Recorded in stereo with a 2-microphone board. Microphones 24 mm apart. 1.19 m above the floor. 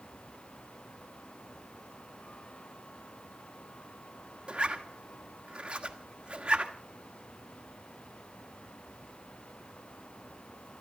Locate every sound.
4.5 s a zipper: 45° right (ahead or behind), 1.7 m